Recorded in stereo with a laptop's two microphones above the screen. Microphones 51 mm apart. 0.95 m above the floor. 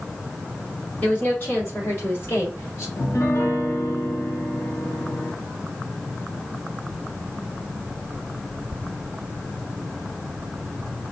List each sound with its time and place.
1.0 s a woman speaking: 35° left (ahead or behind), 2 m; by 2.9 s 55° left (ahead or behind), 2.5 m
3.0 s a piano: 75° left (ahead or behind), 0.9 m